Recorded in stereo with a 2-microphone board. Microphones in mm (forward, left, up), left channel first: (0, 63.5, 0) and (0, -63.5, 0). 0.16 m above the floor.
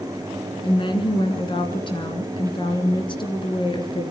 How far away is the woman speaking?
About 2 m.